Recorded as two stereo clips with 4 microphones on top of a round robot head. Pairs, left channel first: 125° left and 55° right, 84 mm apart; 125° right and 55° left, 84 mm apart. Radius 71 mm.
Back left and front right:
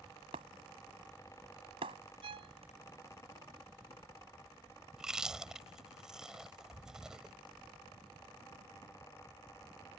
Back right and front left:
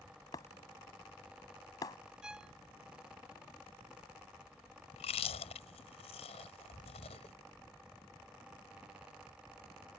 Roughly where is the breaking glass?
Right.